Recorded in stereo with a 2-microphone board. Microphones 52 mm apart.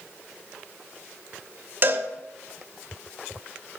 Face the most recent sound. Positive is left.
turn(degrees=-40)  # may be behind; listen again after turning